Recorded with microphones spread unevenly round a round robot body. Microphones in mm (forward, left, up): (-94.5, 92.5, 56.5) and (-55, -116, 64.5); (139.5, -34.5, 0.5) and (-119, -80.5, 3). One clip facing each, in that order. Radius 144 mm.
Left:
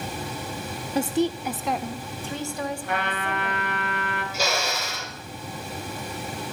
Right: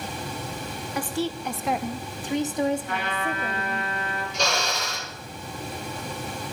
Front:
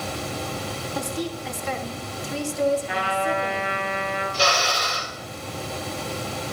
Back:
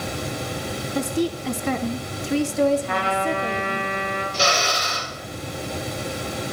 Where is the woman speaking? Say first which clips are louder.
Left 5 dB, back 7 dB; 130° left, 0.9 m; by 3.9 s 140° right, 3 m.